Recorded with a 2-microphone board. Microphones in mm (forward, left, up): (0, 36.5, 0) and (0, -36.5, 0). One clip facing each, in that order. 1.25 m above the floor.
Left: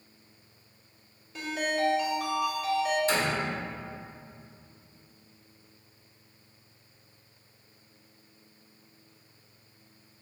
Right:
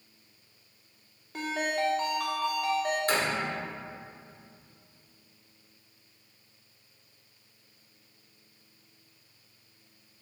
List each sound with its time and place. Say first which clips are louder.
1.3 s a ringtone: even; 65° right (ahead or behind), 2.5 m
3.1 s a door slam: left 1 dB; 50° right (ahead or behind), 2.5 m